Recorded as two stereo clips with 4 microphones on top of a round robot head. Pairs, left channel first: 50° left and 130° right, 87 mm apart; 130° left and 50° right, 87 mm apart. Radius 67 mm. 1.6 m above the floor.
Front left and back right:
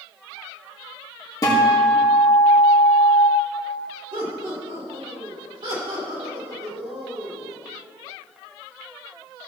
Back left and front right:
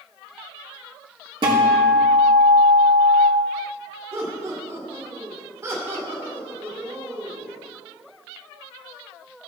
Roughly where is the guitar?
Ahead.